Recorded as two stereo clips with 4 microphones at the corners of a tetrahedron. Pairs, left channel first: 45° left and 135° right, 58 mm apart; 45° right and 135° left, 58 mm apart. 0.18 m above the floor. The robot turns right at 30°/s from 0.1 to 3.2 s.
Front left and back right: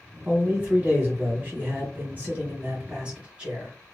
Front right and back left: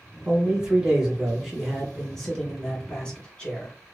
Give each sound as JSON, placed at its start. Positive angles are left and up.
{"t": 0.2, "sound": "a man speaking", "azimuth_deg": -175, "distance_m": 1.5}